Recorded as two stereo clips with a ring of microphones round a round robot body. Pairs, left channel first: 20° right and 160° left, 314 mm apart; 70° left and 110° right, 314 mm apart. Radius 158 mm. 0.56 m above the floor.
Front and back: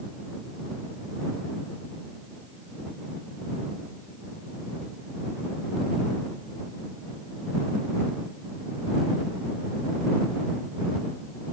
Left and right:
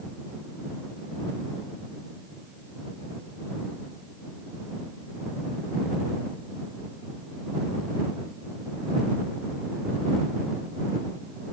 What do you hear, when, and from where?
Only background noise.